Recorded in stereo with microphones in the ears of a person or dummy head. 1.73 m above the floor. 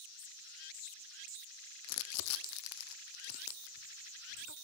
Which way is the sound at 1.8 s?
90° left.